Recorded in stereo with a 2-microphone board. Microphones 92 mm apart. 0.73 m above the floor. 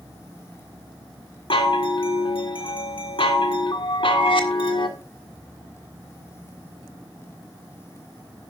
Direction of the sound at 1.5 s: 70° left (ahead or behind).